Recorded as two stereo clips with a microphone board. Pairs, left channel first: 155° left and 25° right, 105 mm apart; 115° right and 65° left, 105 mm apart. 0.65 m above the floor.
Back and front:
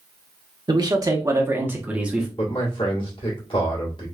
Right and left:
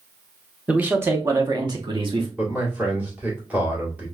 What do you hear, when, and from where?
0.7 s a man speaking: 5° right, 0.9 m; by 2.3 s 60° left, 1.0 m
2.4 s a man speaking: 140° left, 1.9 m